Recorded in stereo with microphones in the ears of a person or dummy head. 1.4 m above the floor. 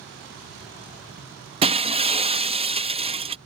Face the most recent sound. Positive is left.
turn(degrees=-35)  # may be behind; listen again after turning